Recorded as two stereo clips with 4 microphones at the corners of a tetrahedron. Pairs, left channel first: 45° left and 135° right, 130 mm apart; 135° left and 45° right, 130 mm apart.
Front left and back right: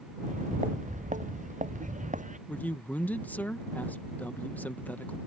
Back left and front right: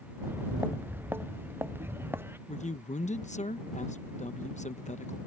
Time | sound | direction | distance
0.2 | footsteps | 120° right | ?
2.5 | a man speaking | 120° left | ?